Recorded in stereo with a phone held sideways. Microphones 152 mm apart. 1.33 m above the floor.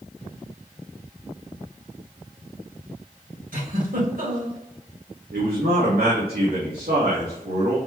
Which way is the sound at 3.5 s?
75° right (ahead or behind).